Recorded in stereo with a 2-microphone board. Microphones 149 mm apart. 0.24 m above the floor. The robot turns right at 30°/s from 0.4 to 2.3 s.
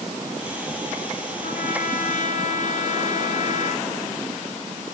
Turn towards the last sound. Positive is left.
turn(degrees=60)  # may be behind; listen again after turning